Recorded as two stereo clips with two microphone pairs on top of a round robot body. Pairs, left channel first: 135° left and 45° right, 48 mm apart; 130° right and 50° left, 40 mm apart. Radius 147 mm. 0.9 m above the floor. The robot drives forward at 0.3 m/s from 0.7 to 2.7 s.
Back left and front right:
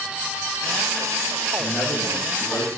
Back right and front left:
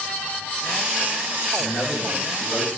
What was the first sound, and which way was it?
A man speaking, 155° left.